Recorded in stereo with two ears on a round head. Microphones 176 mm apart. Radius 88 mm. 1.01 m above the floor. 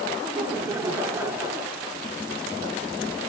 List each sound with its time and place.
0.2 s laughter: 10° right (ahead or behind), 2.5 m